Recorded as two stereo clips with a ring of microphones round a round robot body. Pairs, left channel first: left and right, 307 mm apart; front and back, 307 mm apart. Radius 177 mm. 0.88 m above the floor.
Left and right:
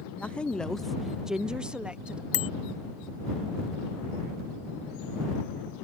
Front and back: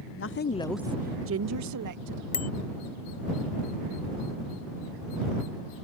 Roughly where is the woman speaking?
Ahead.